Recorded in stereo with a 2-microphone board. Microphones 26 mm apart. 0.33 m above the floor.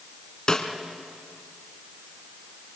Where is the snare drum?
30° left (ahead or behind), 2 m.